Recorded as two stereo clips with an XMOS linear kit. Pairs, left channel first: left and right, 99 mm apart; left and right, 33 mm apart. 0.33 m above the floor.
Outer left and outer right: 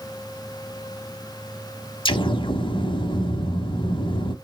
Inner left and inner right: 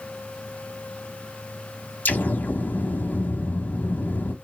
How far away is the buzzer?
No buzzer in this recording.